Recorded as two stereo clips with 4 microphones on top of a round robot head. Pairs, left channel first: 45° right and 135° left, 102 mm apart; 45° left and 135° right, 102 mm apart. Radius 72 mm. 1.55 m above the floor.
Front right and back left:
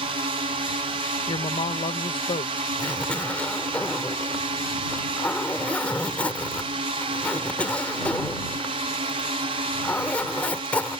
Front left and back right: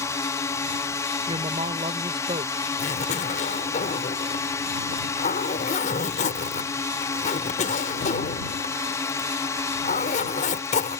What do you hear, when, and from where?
0.0 s a drone: 105° left
1.3 s a woman speaking: 90° right
2.8 s a zipper: 35° left